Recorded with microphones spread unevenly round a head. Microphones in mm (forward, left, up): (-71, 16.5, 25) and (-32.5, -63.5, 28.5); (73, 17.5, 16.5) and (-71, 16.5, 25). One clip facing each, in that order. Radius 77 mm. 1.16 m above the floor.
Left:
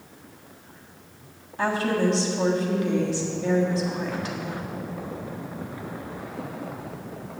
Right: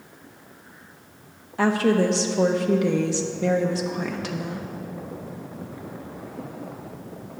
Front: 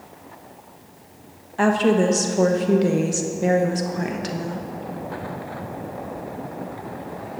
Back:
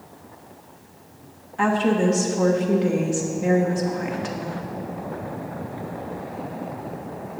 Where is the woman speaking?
50° right, 1.1 m.